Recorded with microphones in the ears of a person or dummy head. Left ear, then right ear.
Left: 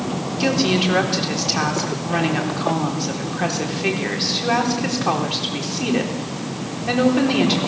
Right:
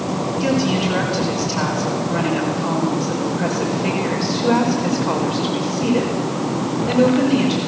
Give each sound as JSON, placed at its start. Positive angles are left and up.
{"t": 0.4, "sound": "a woman speaking", "side_deg": 60, "distance_m": 4.5}